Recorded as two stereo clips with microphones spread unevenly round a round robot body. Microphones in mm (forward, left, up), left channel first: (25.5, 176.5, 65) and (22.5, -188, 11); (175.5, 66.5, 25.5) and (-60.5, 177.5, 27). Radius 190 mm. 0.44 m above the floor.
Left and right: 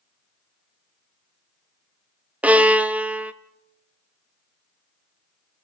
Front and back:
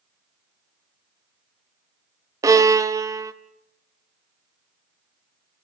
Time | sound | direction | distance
2.4 | a violin | 145° right | 0.9 m